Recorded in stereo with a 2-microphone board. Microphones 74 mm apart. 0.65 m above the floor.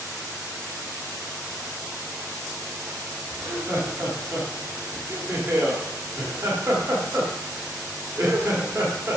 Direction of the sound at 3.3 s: 40° right (ahead or behind).